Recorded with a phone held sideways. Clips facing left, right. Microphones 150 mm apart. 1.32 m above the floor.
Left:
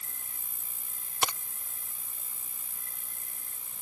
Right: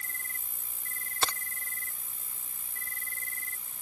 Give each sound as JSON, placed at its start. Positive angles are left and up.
{"t": 0.0, "sound": "an insect", "side_deg": 10}
{"t": 1.2, "sound": "a crack", "side_deg": 15}